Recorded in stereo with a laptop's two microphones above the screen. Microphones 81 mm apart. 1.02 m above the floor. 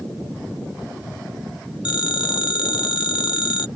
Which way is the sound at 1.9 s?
85° left.